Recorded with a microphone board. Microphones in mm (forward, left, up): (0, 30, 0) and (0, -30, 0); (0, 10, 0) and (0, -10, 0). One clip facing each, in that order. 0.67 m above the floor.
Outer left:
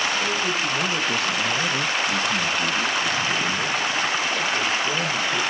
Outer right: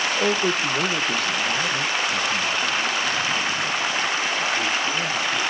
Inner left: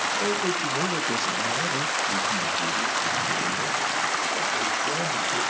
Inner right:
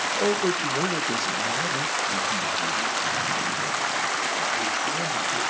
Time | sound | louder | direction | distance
0.2 | a man speaking | outer right 2 dB, inner right 2 dB | 45° right (ahead or behind) | 0.8 m